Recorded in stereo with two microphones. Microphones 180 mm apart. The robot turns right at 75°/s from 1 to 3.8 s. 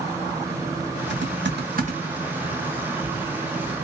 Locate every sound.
1.1 s typing on a keyboard: 80° right, 1.3 m; by 3.7 s 80° left, 1.3 m